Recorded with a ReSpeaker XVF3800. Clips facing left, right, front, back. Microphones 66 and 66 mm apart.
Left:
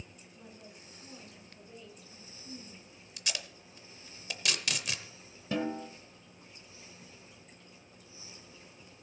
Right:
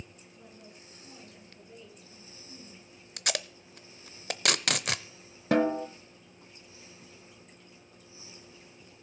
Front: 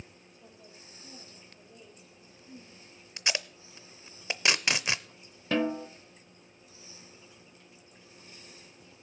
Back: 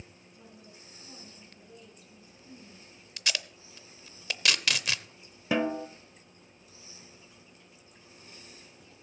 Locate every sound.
0.3 s a woman speaking: 175° left, 5.5 m
3.2 s tape being pulled: 70° right, 0.6 m
5.5 s a snare drum: 100° right, 0.8 m